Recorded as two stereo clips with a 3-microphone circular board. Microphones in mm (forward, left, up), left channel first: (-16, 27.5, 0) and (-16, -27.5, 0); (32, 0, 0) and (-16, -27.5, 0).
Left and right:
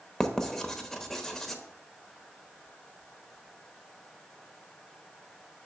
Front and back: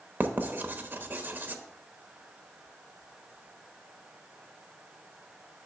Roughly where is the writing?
Behind.